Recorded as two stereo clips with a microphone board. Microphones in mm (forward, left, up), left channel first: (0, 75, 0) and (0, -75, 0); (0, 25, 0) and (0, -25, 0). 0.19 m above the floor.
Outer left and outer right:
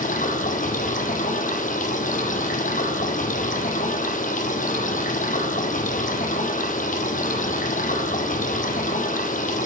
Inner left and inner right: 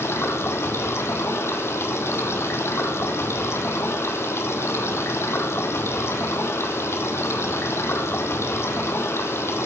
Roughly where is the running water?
Left.